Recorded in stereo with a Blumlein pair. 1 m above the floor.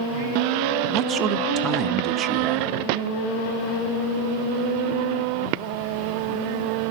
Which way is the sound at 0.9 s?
30° right.